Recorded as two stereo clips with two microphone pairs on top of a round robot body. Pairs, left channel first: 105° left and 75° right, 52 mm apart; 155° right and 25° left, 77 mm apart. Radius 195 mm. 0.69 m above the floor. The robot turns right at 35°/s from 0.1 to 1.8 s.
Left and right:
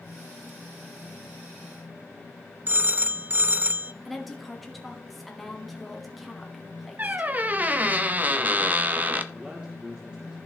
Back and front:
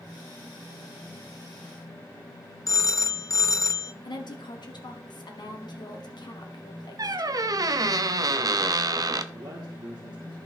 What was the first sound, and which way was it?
A phone ringing, 120° right.